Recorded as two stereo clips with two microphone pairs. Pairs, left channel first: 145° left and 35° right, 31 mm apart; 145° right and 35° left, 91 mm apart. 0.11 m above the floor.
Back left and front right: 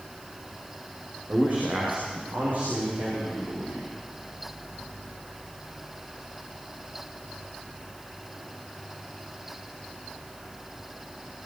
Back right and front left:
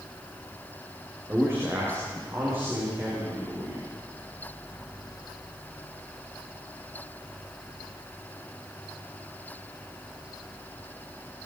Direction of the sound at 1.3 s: 25° right.